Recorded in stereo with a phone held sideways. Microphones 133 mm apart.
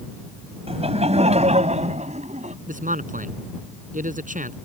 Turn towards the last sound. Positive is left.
turn(degrees=-85)